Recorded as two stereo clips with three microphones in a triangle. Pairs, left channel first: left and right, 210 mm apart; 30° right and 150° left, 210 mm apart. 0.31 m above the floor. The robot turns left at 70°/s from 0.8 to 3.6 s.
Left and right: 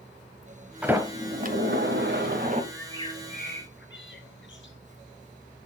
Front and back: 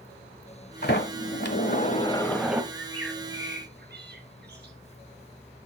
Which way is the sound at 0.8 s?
5° right.